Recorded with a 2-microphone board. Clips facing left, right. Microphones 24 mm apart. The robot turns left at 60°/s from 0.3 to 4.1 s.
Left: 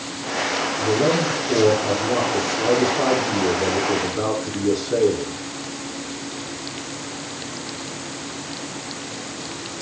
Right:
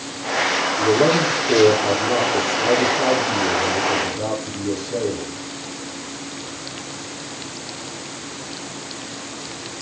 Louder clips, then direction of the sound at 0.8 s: Right 3 dB; 80° right.